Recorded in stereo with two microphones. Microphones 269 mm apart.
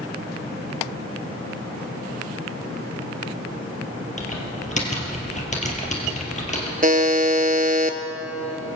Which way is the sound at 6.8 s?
30° right (ahead or behind).